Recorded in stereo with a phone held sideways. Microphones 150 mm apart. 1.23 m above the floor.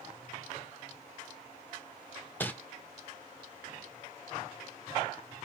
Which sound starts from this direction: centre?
Crumpling, at 2.4 s.